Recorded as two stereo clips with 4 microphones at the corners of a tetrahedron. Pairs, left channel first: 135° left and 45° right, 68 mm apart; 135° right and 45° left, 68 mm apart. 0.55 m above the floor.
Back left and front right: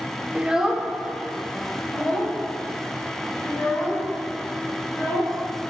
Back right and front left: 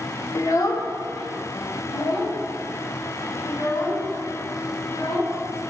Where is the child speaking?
110° right, 0.8 m; by 5.3 s 160° right, 4.5 m.